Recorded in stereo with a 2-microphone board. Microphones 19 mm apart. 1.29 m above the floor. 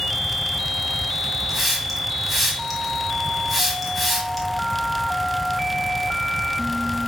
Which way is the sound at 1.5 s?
10° right (ahead or behind).